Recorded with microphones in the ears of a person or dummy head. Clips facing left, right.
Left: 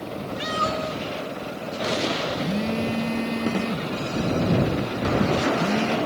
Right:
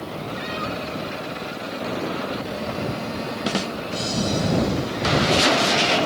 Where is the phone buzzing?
35° left (ahead or behind).